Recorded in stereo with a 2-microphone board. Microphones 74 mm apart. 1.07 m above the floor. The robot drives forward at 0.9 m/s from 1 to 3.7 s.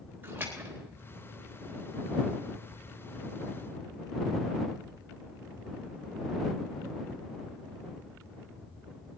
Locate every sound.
0.2 s a splash: 30° right (ahead or behind), 3.5 m